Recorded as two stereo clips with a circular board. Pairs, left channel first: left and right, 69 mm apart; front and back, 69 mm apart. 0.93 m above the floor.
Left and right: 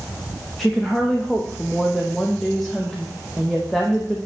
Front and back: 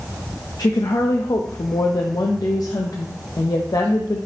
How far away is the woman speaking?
About 0.5 m.